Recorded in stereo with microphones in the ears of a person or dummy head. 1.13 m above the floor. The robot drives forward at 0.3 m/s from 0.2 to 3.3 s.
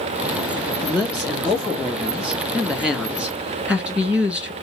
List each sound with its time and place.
0.8 s a man speaking: 5° right (ahead or behind), 2 m